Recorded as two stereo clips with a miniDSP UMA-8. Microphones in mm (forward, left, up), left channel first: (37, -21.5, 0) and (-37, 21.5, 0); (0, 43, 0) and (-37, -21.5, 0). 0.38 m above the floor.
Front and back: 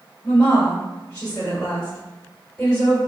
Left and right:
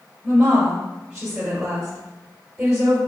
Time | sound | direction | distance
0.2 | a woman speaking | 90° right | 1.4 m